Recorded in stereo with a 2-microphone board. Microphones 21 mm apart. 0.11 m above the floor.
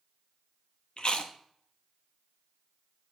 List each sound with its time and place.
1.0 s chewing: 50° left (ahead or behind), 0.8 m